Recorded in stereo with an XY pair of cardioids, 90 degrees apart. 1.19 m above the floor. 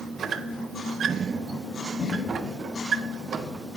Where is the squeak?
55° right, 0.6 m.